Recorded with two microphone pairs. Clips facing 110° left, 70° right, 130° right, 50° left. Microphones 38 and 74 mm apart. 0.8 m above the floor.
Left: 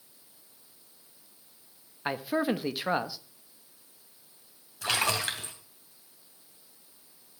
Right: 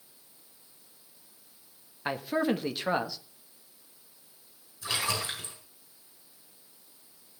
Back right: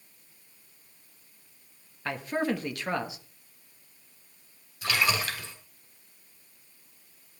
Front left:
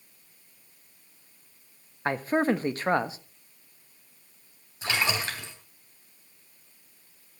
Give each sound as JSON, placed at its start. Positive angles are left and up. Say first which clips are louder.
{"t": 2.0, "sound": "a man speaking", "louder": "even, front left 5 dB", "azimuth_deg": 30, "distance_m": 1.2}
{"t": 4.8, "sound": "a splash", "louder": "left 3 dB, back right 1 dB", "azimuth_deg": 105, "distance_m": 4.0}